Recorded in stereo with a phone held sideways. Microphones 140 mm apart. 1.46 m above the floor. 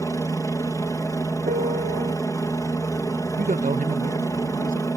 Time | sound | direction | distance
0.0 | a helicopter | 20° left (ahead or behind) | ?
1.5 | a piano | 65° right (ahead or behind) | ?
3.4 | a man speaking | 70° right (ahead or behind) | ?